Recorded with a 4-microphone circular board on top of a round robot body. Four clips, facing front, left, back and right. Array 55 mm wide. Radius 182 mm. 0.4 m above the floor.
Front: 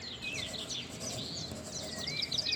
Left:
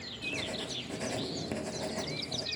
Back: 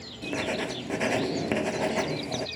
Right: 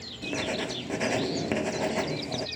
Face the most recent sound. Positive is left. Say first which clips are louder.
# right 7 dB, back 13 dB
turn(degrees=-150)